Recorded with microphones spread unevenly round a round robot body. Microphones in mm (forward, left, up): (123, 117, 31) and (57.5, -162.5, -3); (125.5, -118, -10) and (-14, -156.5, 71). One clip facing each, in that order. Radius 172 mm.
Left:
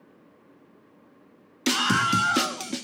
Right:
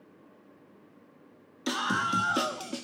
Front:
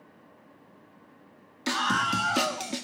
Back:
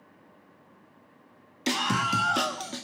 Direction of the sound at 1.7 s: 90° left.